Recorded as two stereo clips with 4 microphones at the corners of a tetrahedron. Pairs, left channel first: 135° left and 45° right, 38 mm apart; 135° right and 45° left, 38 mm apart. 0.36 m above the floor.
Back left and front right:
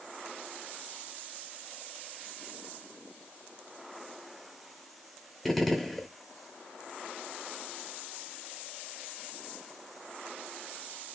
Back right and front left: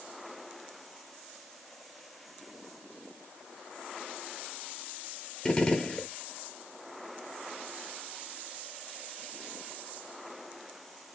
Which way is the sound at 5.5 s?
145° right.